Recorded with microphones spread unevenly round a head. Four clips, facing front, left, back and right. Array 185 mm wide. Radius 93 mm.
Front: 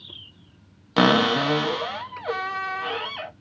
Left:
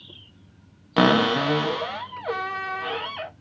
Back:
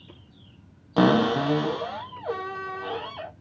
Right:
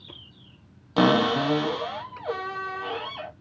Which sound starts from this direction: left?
A cupboard door, at 1.0 s.